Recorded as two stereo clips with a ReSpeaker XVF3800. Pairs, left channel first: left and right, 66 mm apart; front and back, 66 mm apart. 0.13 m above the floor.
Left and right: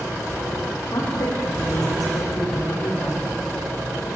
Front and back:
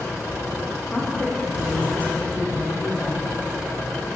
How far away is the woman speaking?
About 7.5 m.